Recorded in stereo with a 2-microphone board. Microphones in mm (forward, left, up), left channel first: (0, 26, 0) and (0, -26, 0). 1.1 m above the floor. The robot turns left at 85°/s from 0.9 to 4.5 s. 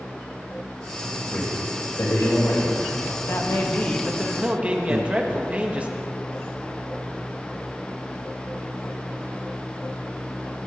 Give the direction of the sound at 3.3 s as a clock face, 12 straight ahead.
9 o'clock.